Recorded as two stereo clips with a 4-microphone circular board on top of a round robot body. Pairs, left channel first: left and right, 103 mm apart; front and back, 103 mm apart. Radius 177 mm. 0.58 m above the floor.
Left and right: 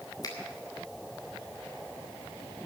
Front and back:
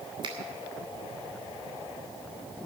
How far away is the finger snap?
About 2.5 m.